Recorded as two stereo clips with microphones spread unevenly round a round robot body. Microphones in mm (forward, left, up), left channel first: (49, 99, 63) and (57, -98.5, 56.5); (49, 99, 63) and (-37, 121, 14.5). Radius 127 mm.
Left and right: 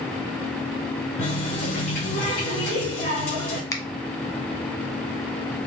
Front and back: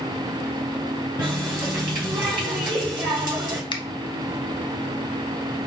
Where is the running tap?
130° left, 3 m.